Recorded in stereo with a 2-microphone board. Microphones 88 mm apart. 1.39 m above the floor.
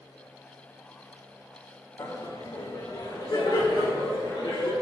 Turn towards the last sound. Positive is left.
turn(degrees=65)  # may be behind; listen again after turning